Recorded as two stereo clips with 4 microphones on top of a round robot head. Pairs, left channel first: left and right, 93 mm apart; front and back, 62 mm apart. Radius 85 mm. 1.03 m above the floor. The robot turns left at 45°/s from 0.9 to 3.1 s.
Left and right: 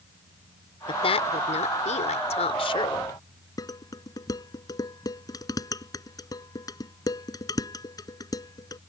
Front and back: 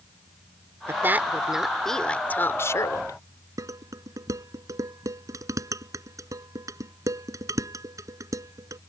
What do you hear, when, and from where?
0.9 s a woman speaking: 125° left; by 3.2 s 30° left
3.6 s dishes clattering: 145° left